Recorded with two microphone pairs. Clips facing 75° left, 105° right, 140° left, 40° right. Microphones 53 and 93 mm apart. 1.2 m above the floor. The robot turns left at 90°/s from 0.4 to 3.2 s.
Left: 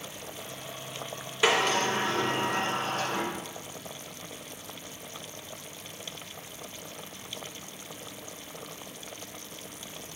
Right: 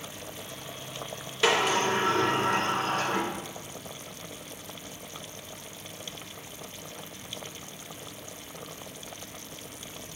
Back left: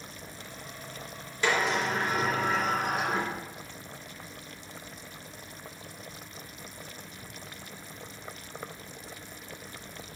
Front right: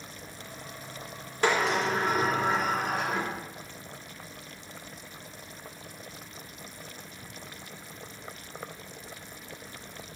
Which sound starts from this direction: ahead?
A sliding door, at 1.4 s.